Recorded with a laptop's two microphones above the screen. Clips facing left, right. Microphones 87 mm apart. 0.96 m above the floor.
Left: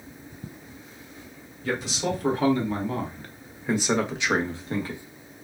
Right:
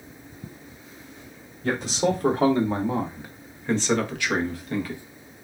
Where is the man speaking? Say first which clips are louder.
Right 4 dB; 50° right (ahead or behind), 1.0 m; by 5.0 s 30° left (ahead or behind), 1.2 m.